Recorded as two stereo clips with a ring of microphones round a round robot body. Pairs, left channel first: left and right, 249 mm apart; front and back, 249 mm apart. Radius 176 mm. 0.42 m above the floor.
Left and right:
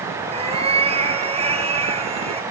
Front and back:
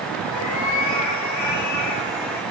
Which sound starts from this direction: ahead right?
A cat meowing, at 0.3 s.